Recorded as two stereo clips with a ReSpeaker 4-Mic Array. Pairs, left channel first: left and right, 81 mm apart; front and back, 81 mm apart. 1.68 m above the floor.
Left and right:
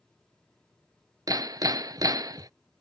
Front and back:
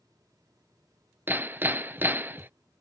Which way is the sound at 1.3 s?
120° right.